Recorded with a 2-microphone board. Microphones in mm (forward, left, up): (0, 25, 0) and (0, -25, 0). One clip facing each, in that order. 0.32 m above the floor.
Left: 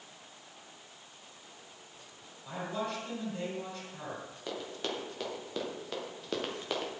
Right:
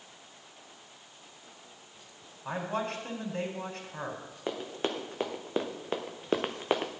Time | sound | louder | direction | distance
2.5 | a man speaking | right 3 dB | 50° right (ahead or behind) | 3 m
4.5 | running footsteps | right 5 dB | 30° right (ahead or behind) | 2.5 m